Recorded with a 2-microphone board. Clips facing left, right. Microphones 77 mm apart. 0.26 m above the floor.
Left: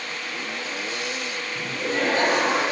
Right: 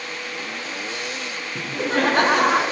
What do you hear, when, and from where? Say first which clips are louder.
1.6 s laughter: right 4 dB; 60° right (ahead or behind), 2.5 m